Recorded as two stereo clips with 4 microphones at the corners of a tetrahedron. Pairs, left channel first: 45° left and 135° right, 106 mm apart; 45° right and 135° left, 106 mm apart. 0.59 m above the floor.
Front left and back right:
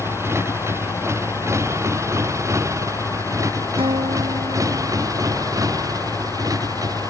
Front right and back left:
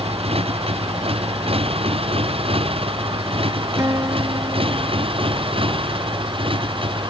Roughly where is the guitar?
Behind.